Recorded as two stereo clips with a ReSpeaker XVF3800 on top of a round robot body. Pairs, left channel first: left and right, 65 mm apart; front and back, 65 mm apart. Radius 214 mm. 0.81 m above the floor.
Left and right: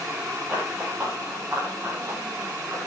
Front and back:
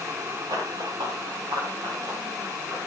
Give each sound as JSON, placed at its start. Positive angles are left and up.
{"t": 0.5, "sound": "running footsteps", "azimuth_deg": -175, "distance_m": 6.5}